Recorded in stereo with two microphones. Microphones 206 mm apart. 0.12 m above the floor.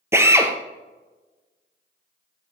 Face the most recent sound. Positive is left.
turn(degrees=-10)  # may be behind; listen again after turning